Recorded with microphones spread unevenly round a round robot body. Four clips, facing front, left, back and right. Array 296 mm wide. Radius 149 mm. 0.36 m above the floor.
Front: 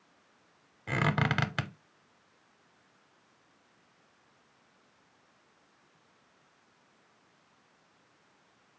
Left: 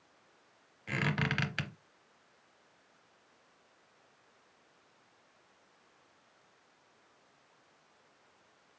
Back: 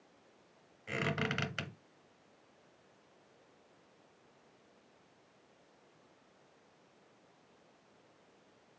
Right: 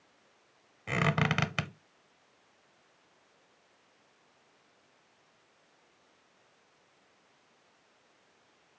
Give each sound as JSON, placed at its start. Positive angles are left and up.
{"t": 0.9, "sound": "a squeak", "azimuth_deg": -25, "distance_m": 0.6}